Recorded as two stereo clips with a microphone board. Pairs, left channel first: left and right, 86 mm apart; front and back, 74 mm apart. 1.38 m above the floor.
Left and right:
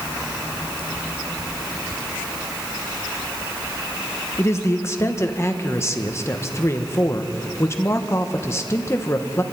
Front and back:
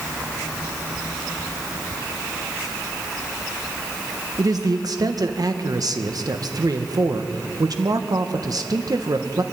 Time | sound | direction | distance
4.4 | a man speaking | 150° left | 1.3 m